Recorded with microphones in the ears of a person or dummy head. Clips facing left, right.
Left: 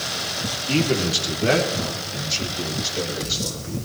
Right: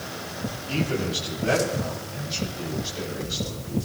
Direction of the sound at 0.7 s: 65° left (ahead or behind).